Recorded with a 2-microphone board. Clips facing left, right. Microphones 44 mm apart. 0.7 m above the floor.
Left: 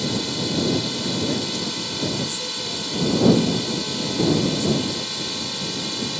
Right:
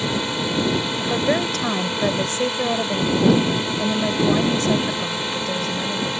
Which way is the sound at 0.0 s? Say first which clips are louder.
Right 2 dB; 30° right (ahead or behind).